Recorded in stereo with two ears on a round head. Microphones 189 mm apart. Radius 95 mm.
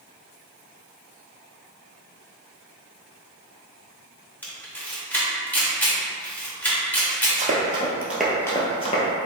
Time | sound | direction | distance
4.4 | a camera shutter | 10° left (ahead or behind) | 0.8 m
7.4 | running footsteps | 35° right (ahead or behind) | 1.1 m